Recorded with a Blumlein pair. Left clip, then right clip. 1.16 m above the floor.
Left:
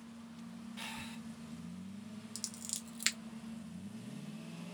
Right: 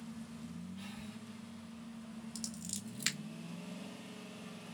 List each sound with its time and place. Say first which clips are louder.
0.8 s breathing: left 8 dB; 55° left, 0.6 m
2.4 s scissors: left 1 dB; 10° left, 0.8 m